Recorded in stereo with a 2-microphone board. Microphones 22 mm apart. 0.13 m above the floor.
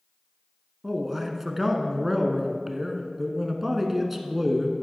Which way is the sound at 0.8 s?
15° right (ahead or behind).